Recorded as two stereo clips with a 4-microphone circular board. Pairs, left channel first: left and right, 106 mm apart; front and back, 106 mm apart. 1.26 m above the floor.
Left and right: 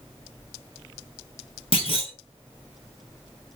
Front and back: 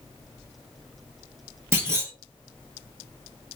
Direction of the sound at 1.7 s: 115° left.